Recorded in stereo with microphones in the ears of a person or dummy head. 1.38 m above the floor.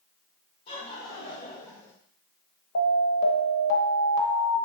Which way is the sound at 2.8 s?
65° left (ahead or behind).